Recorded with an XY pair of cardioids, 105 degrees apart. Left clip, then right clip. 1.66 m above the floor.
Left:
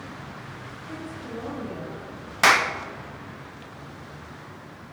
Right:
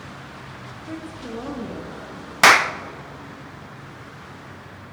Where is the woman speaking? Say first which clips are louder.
Right 3 dB; 60° right, 2.5 m; by 2.3 s 45° right, 3.5 m.